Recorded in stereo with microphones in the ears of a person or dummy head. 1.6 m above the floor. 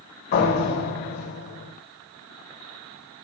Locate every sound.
0.3 s a door slam: 50° left (ahead or behind), 6.5 m